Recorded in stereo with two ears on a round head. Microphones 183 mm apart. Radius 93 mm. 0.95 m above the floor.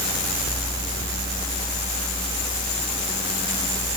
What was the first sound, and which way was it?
Only background noise.